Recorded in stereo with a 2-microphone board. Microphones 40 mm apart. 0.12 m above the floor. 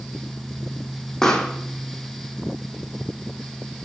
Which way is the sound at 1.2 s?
10° left (ahead or behind).